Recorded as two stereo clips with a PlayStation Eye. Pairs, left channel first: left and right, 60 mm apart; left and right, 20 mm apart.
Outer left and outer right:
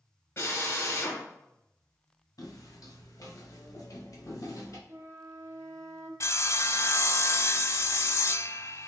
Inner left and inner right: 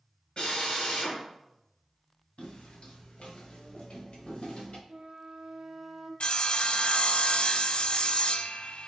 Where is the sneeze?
I don't hear a sneeze.